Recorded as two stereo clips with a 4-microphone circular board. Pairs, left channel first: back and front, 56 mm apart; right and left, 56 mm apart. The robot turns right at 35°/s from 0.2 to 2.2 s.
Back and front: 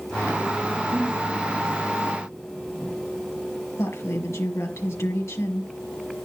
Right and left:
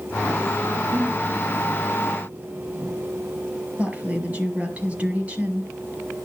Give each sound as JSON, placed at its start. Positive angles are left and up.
{"t": 0.9, "sound": "breathing", "azimuth_deg": 50, "distance_m": 5.5}
{"t": 3.8, "sound": "a woman speaking", "azimuth_deg": 150, "distance_m": 5.0}